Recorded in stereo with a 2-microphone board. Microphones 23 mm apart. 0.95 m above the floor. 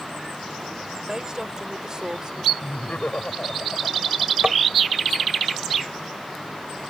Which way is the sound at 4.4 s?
55° right (ahead or behind).